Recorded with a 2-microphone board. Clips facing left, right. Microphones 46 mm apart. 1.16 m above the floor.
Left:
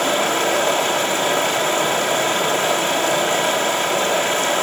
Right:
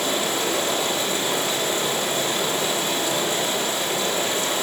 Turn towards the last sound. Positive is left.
turn(degrees=55)  # may be behind; listen again after turning